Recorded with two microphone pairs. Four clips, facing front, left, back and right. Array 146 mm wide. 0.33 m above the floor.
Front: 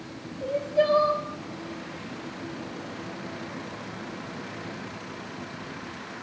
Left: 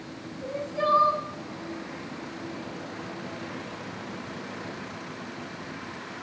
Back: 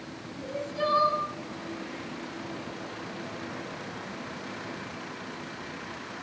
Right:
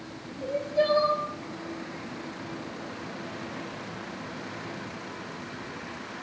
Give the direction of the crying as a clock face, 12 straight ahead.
1 o'clock.